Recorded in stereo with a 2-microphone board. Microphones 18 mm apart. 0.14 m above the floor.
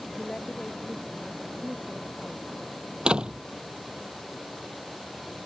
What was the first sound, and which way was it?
A woman speaking, 45° left (ahead or behind).